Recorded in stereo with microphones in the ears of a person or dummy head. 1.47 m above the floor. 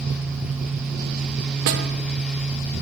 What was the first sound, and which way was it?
A snare drum, 55° right (ahead or behind).